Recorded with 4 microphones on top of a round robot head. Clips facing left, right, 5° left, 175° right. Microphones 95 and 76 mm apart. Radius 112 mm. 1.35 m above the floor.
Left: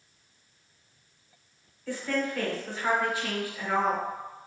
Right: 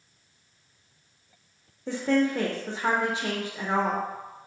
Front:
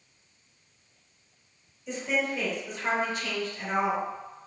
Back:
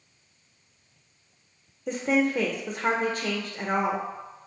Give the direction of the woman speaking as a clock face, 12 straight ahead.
5 o'clock.